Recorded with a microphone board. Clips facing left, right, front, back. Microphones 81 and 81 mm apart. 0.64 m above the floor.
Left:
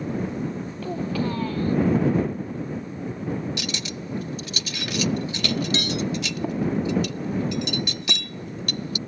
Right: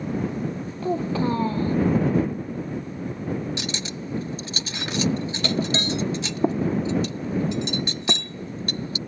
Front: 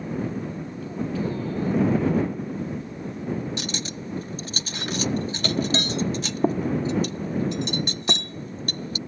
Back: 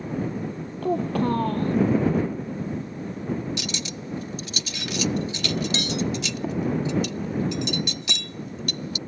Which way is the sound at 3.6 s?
40° right.